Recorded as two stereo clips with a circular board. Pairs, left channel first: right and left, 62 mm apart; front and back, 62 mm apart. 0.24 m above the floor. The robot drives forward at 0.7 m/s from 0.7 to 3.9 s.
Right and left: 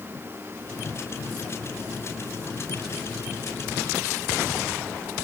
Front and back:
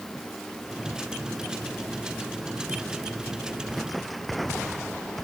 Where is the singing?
I don't hear singing.